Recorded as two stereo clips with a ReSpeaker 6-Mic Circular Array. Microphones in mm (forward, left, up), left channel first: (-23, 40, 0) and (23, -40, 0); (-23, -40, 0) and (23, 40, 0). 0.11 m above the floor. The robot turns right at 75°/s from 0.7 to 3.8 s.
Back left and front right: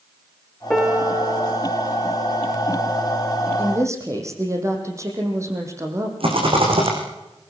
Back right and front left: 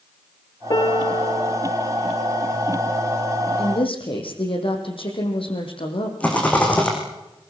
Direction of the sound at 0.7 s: 155° right.